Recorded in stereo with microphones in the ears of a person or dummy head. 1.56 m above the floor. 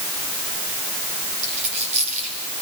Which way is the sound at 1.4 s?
35° right (ahead or behind).